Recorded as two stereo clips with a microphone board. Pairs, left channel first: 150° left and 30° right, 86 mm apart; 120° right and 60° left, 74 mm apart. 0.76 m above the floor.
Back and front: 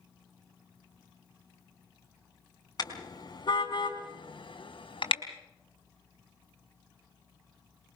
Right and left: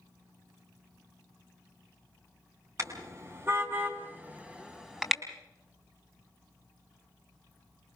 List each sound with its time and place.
2.8 s a car horn: 110° left, 4 m; by 5.2 s 145° left, 3.5 m